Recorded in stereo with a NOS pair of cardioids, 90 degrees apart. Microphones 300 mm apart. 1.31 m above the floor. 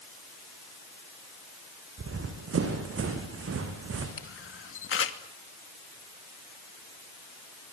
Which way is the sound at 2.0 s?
50° right.